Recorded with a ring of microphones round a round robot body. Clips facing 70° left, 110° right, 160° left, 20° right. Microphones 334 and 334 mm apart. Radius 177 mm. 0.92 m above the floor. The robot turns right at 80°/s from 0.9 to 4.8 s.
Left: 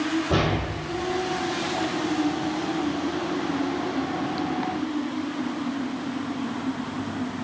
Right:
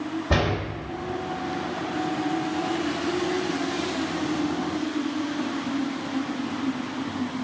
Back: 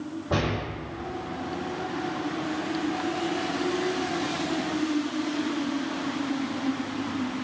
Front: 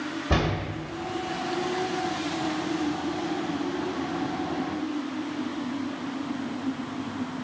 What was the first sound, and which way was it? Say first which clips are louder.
A door slam: left 1 dB, front 1 dB; 70° right.